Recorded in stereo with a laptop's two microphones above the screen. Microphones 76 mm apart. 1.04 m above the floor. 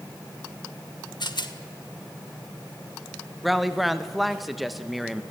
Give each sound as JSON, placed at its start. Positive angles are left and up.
{"t": 1.2, "sound": "a rattle", "side_deg": 65, "distance_m": 1.8}
{"t": 3.4, "sound": "a woman speaking", "side_deg": -5, "distance_m": 1.0}